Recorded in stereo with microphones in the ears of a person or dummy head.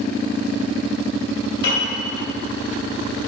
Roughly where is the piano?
Left.